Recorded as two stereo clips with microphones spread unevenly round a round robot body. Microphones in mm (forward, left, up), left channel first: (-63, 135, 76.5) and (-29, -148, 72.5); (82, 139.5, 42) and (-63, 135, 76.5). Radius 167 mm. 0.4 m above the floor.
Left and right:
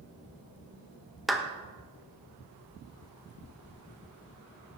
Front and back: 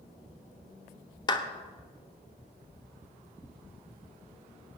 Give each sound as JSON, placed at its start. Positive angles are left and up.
{"t": 1.3, "sound": "a clap", "azimuth_deg": 5, "distance_m": 1.0}